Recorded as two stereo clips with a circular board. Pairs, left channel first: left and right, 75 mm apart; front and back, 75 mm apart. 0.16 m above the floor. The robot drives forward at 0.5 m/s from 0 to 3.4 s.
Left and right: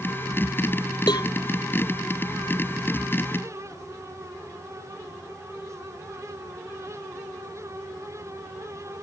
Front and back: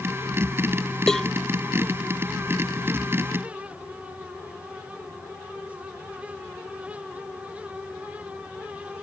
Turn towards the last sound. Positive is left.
turn(degrees=95)